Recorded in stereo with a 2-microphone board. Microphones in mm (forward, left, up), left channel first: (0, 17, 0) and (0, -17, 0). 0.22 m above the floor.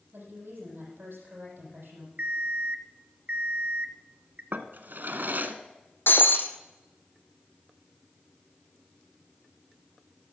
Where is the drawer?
65° right (ahead or behind), 1.0 m.